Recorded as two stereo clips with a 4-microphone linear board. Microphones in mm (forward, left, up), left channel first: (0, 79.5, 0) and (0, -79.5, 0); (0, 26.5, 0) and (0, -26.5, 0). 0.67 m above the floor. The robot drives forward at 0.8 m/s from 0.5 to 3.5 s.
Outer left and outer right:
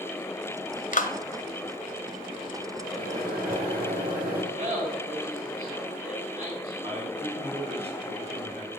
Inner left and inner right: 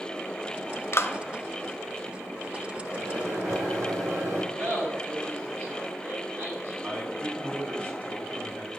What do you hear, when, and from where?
0.9 s a clap: 55° left (ahead or behind), 0.8 m; by 1.1 s 50° left (ahead or behind), 0.9 m
2.9 s a microwave: 75° right (ahead or behind), 2.5 m; by 4.4 s 70° right (ahead or behind), 2.5 m
4.5 s laughter: 60° right (ahead or behind), 5.5 m
6.8 s a man speaking: 40° right (ahead or behind), 3.5 m